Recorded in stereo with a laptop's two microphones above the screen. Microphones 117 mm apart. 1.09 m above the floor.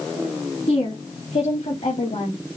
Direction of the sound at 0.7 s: 65° left (ahead or behind).